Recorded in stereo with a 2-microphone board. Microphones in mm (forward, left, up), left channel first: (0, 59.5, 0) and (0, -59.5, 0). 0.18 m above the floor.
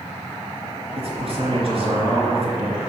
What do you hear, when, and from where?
0.9 s a man speaking: 55° right (ahead or behind), 2.5 m